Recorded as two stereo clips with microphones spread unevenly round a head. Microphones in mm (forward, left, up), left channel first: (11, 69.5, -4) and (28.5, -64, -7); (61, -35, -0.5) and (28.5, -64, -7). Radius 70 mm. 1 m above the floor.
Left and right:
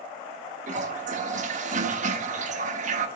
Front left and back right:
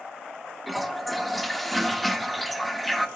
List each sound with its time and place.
0.7 s a toilet flushing: 50° right, 0.9 m